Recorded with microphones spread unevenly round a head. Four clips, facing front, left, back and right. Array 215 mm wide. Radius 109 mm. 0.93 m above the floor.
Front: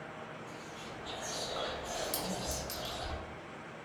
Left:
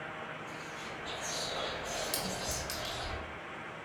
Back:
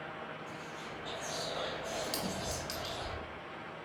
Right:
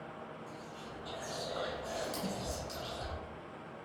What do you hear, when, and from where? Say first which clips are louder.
0.5 s whispering: left 3 dB, back 1 dB; 125° right, 1.7 m
2.1 s a clink: left 1 dB, even; 115° left, 0.9 m